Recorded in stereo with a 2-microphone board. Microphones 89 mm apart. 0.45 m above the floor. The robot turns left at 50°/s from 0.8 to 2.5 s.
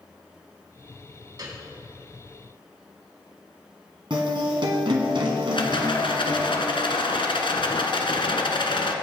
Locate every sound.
1.4 s a piano: 50° right (ahead or behind), 4.5 m; by 1.6 s 60° right (ahead or behind), 4.5 m
4.1 s a guitar: 65° right (ahead or behind), 2 m
5.5 s a rattle: 80° left, 1.2 m